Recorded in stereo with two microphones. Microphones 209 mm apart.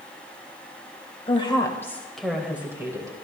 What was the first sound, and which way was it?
A woman speaking, 25° left (ahead or behind).